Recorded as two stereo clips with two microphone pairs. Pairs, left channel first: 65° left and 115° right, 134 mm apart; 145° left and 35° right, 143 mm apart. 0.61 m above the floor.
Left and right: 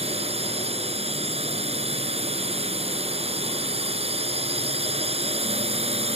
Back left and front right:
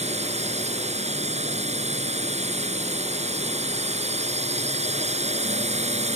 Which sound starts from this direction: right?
A drone, at 0.0 s.